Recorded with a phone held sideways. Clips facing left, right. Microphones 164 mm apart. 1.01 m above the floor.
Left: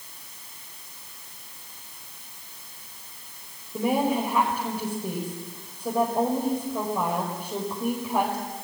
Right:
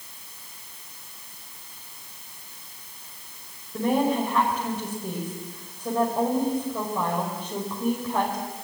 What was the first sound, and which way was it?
A woman speaking, 10° left (ahead or behind).